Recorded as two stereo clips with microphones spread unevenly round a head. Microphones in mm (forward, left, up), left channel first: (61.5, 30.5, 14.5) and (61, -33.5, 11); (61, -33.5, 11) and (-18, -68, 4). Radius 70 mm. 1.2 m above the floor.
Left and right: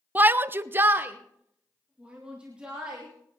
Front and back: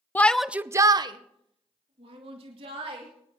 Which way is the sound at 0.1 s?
45° right.